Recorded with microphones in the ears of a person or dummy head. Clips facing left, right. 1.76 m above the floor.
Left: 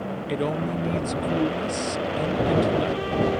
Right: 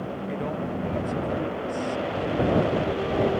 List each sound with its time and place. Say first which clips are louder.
0.3 s a man speaking: left 5 dB; 45° left (ahead or behind)